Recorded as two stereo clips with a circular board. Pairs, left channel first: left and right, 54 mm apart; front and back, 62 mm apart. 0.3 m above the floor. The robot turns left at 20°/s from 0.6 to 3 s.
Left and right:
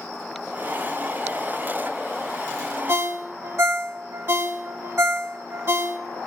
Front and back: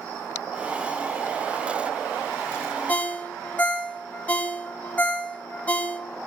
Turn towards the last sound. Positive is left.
turn(degrees=-60)